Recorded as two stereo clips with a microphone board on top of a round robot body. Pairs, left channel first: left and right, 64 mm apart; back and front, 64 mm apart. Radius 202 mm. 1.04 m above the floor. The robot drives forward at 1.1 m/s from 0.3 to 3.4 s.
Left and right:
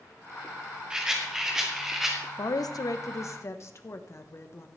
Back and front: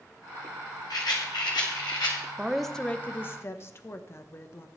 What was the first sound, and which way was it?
A rattle, 165° right.